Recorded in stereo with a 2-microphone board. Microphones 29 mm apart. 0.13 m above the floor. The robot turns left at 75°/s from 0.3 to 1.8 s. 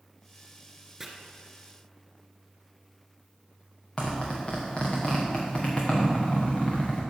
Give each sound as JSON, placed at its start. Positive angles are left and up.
{"t": 1.0, "sound": "chopping", "side_deg": -15, "distance_m": 1.3}
{"t": 4.0, "sound": "a zipper", "side_deg": 25, "distance_m": 3.0}